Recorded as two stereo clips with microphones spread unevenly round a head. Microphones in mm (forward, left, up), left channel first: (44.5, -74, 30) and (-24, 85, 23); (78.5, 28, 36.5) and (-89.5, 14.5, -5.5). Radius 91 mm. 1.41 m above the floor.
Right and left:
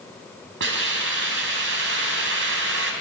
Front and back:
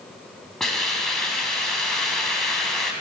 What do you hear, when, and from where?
0.6 s a hiss: 90° left, 4.5 m